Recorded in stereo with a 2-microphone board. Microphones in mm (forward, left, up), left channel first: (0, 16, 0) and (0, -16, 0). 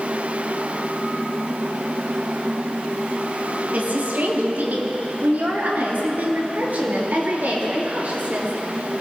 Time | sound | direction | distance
3.7 | a woman speaking | 65° right (ahead or behind) | 3 m